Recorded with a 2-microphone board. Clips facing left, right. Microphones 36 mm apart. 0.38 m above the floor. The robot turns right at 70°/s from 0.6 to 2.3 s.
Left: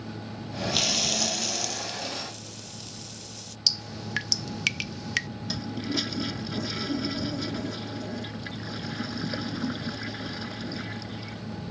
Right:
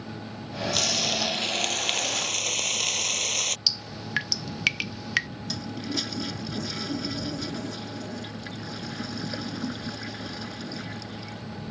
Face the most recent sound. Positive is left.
turn(degrees=10)  # may be behind; listen again after turning